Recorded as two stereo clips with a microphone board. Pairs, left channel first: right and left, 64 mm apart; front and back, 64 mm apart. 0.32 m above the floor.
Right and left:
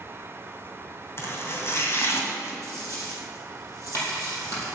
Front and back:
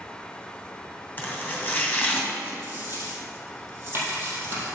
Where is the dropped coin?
125° right, 4 m.